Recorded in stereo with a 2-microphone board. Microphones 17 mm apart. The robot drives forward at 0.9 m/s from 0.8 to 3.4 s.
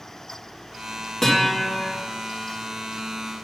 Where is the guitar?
20° left (ahead or behind), 3.5 m; by 1.9 s 25° left (ahead or behind), 3 m.